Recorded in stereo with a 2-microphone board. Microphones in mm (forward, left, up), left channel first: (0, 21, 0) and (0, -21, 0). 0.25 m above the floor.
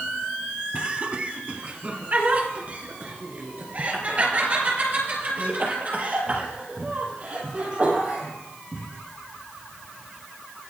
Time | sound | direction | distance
0.7 | laughter | 25° right (ahead or behind) | 1.3 m